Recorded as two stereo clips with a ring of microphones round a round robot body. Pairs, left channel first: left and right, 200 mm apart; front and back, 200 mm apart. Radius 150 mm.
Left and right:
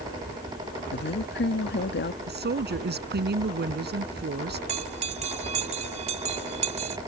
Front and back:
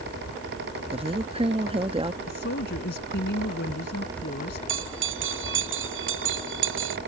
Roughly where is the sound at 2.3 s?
Ahead right.